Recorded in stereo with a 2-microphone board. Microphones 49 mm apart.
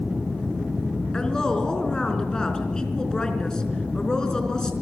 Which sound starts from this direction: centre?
A woman speaking, at 1.1 s.